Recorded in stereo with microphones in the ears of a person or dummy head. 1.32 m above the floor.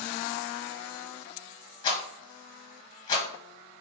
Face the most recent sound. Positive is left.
turn(degrees=25)  # may be behind; listen again after turning